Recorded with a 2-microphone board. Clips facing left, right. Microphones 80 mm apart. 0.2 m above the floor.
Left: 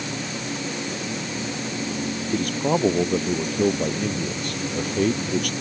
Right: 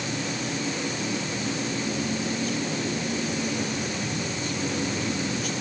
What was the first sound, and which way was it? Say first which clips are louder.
A man speaking: left 6 dB; 65° left (ahead or behind).